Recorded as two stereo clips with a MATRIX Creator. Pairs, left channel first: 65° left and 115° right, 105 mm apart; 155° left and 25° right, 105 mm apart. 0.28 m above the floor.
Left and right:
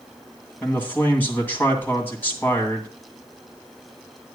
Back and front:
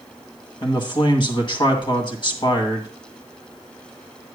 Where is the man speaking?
135° left, 2.5 m.